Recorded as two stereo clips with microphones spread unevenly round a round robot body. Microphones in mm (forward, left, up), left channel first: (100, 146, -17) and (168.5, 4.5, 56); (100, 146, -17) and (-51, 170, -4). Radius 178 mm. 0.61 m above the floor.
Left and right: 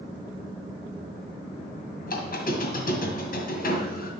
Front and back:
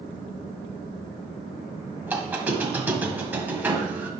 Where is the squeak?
90° left, 1.8 m.